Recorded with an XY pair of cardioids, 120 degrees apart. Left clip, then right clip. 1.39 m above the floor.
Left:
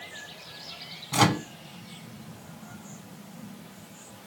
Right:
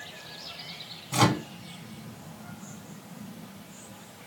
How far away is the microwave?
About 0.9 m.